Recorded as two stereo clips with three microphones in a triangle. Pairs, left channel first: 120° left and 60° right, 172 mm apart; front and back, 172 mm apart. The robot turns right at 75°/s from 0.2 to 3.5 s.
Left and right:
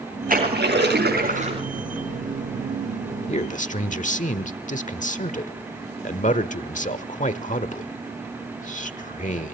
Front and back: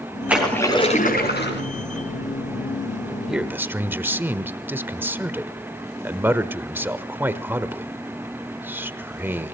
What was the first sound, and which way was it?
A splash, 100° right.